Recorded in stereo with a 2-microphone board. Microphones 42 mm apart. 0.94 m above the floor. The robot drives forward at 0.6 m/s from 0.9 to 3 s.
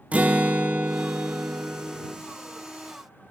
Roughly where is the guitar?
Right.